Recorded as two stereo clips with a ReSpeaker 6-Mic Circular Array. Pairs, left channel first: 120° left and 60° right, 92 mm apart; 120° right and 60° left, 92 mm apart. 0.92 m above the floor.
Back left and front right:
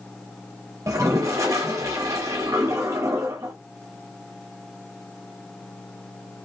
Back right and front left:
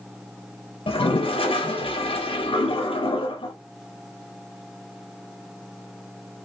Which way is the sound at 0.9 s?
115° right.